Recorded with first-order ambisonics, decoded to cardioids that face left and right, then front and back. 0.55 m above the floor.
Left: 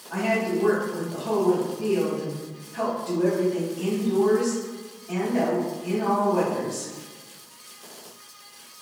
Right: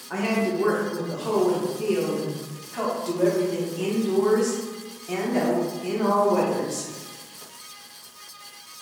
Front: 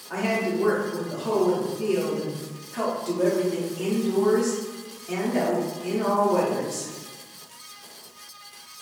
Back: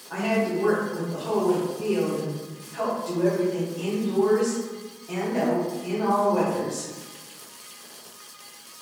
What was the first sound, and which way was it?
A woman speaking, 65° right.